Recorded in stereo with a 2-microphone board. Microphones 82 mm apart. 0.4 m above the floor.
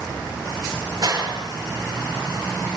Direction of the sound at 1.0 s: 45° right (ahead or behind).